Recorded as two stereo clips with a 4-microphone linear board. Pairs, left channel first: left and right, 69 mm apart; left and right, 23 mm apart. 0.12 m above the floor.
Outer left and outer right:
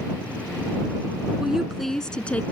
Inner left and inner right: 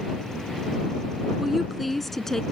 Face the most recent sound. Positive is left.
turn(degrees=20)  # may be behind; listen again after turning